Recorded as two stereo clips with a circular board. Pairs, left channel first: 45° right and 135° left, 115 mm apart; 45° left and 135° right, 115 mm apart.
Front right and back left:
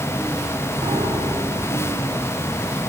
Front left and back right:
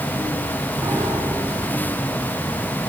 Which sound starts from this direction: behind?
A piano, at 0.8 s.